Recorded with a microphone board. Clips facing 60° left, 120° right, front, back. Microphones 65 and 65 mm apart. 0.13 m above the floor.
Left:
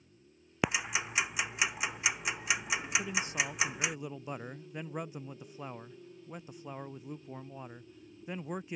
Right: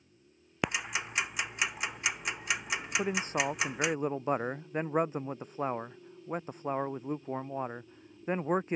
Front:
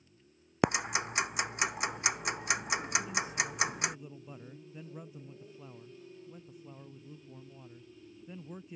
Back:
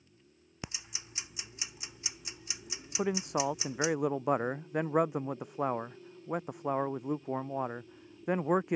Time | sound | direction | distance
0.6 | ticking | 25° right | ?
3.0 | a man speaking | 165° right | ?